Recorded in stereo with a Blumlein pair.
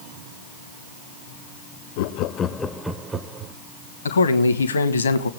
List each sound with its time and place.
2.0 s laughter: 50° left, 0.7 m; by 3.5 s 25° right, 1.0 m
4.0 s a man speaking: 70° left, 1.2 m